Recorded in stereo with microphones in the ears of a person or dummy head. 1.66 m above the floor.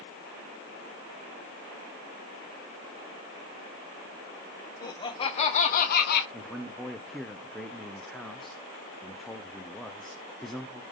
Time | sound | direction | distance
4.8 | laughter | 20° left (ahead or behind) | 1.9 m
6.3 | a man speaking | 5° left (ahead or behind) | 0.9 m